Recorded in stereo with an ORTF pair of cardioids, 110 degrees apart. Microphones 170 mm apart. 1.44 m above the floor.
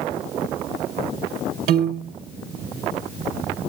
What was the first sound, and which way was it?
A piano, 65° right.